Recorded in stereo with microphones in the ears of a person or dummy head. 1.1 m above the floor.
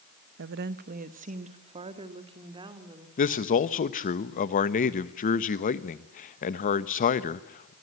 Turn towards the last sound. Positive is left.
turn(degrees=40)  # may be behind; listen again after turning